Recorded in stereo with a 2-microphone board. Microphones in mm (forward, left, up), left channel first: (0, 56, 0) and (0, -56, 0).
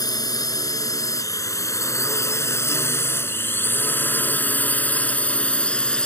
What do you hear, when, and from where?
0.0 s a drone: 35° left (ahead or behind); by 6.1 s 10° left (ahead or behind)